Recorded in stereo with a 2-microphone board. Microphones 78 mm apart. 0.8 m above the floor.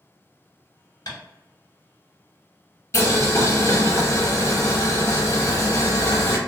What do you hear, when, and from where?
1.1 s tapping: 60° left (ahead or behind), 1.2 m
2.9 s boiling: 40° left (ahead or behind), 0.7 m